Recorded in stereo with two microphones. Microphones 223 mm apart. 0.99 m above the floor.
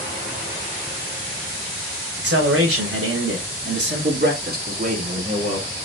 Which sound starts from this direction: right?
A man speaking, at 2.2 s.